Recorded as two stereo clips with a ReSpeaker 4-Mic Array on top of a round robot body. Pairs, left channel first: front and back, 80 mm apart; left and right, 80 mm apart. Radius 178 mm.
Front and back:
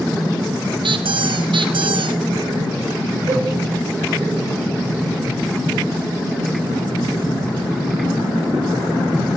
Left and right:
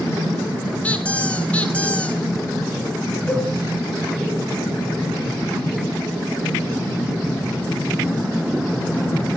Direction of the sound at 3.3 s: 170° left.